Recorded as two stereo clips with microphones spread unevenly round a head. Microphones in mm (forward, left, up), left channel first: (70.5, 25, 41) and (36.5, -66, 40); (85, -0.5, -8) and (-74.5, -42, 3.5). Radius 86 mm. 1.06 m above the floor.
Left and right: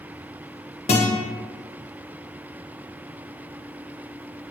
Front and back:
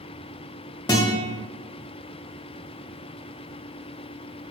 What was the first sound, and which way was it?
A guitar, 85° left.